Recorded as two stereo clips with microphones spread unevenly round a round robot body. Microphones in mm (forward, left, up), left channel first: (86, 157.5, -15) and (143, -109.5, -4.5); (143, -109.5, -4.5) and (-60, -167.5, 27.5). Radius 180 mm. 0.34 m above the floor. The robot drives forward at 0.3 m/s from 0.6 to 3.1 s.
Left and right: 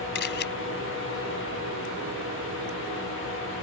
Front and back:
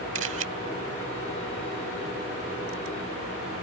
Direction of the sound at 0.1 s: 155° left.